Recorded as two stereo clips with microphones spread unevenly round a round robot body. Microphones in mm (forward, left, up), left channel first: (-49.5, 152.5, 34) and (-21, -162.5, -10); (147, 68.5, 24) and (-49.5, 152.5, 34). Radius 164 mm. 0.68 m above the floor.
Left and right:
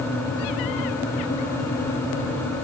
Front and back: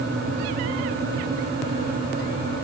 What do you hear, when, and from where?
Only background noise.